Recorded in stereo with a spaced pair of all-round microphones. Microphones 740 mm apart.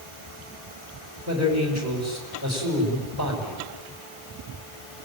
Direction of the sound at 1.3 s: 20° right (ahead or behind).